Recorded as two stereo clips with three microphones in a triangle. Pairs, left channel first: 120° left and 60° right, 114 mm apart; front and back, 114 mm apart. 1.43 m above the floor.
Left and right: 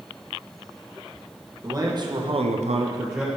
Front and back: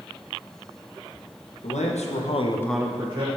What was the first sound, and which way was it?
A man speaking, straight ahead.